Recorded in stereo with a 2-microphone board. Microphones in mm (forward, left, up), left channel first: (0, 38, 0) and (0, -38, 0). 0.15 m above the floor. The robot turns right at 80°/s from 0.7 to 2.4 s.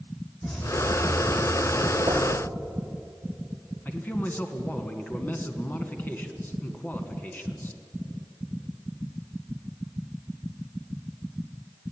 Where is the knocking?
75° right (ahead or behind), 5 m; by 2.3 s 55° right (ahead or behind), 5 m.